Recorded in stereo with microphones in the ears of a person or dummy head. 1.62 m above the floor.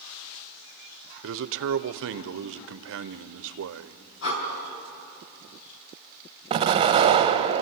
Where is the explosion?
25° right (ahead or behind), 0.9 m.